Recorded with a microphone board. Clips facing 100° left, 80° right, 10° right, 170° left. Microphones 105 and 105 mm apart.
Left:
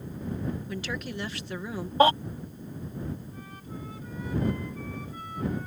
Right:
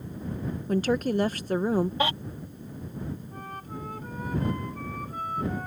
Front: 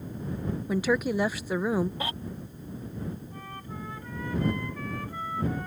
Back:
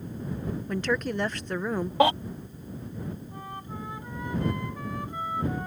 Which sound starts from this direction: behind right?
A flute, at 3.3 s.